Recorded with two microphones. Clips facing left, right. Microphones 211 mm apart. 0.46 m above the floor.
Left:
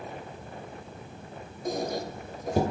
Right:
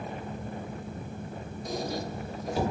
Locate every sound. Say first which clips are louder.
1.6 s a squeak: left 3 dB; 50° left (ahead or behind), 0.5 m